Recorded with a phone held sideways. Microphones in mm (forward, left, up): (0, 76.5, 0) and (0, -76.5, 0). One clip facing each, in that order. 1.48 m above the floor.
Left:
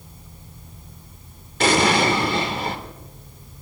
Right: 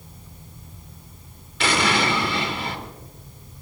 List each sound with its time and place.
1.6 s an explosion: 45° left (ahead or behind), 2.0 m